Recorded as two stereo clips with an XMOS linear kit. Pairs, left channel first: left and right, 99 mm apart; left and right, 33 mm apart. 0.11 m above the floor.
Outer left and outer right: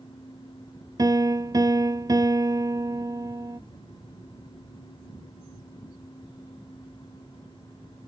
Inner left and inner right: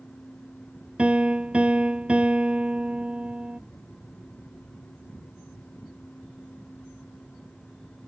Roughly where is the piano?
Right.